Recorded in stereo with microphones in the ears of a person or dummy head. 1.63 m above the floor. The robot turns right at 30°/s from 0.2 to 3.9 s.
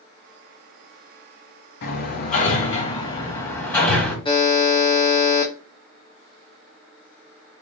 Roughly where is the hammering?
Left.